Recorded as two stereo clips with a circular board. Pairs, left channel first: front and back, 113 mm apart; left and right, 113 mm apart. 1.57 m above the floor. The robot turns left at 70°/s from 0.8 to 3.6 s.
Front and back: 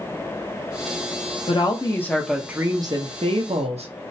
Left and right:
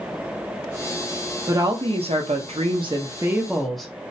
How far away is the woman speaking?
About 0.7 m.